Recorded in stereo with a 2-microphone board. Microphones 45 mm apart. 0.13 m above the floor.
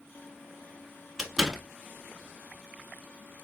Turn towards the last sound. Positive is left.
turn(degrees=0)  # may be behind; listen again after turning